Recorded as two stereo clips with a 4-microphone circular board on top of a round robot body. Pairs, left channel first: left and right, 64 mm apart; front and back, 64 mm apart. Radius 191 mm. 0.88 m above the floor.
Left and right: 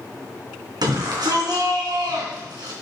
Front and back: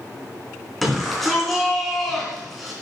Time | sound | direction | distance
0.8 | a shout | 90° right | 3 m